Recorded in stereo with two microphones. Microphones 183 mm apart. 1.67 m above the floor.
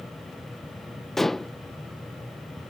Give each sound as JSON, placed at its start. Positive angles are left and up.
{"t": 1.2, "sound": "dishes clattering", "side_deg": 0}